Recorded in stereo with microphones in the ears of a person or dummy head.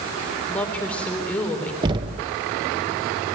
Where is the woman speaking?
5° left (ahead or behind), 4.5 m.